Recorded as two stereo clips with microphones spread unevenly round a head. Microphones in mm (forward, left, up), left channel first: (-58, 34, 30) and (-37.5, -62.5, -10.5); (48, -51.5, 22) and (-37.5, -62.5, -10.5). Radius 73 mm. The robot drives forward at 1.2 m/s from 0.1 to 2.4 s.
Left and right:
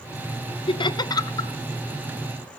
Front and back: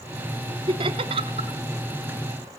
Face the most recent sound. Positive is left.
turn(degrees=170)